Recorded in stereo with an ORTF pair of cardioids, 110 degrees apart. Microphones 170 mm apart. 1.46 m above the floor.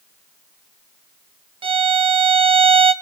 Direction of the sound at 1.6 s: 35° right.